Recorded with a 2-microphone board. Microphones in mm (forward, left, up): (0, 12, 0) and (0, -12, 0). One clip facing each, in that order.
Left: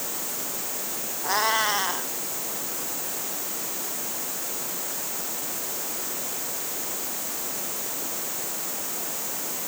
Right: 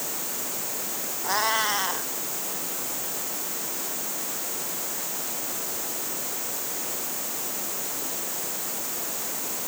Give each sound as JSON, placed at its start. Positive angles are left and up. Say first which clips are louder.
{"t": 1.2, "sound": "a cat meowing", "louder": "left 1 dB", "side_deg": 5}